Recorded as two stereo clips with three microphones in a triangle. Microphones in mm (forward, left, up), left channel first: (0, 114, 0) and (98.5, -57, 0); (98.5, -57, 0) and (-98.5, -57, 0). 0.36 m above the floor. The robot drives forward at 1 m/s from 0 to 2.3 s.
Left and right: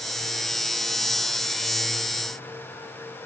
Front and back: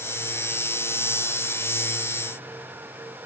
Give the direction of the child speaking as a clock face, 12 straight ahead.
I don't hear a child speaking.